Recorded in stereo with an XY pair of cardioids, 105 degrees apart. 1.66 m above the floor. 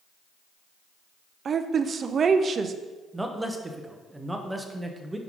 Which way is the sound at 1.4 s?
45° right.